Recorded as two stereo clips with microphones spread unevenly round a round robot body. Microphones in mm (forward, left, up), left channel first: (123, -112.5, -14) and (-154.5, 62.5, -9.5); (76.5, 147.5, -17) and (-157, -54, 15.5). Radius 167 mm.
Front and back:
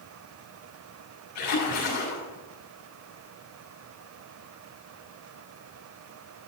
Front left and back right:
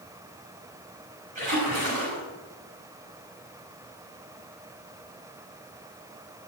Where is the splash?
70° right, 7 m.